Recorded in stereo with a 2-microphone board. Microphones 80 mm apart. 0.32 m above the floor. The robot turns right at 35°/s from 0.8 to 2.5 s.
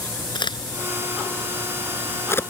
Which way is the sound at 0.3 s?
75° left (ahead or behind).